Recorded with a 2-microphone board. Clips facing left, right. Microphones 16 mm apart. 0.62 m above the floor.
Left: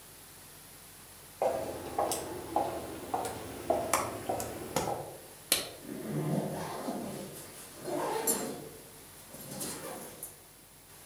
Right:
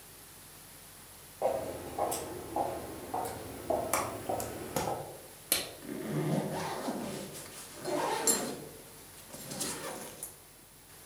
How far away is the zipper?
About 0.6 m.